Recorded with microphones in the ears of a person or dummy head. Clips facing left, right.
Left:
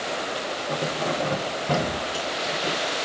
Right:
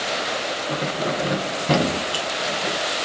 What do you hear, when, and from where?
0.7 s keys jangling: 15° right (ahead or behind), 1.2 m; by 2.8 s 30° right (ahead or behind), 1.3 m